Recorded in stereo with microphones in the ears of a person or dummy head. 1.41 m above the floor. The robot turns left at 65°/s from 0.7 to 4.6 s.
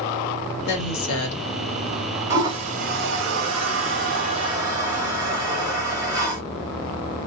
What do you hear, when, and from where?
0.7 s a woman speaking: 130° left, 1.1 m; by 1.5 s 80° left, 1.1 m
2.3 s a toilet flushing: 15° right (ahead or behind), 1.0 m